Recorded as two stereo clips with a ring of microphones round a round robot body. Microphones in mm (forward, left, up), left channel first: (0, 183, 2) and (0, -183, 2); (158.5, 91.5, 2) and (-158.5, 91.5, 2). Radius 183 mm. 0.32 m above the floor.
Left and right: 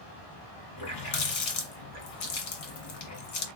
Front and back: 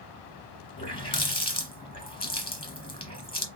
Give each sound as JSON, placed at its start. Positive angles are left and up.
{"t": 0.8, "sound": "a running tap", "azimuth_deg": 75, "distance_m": 1.6}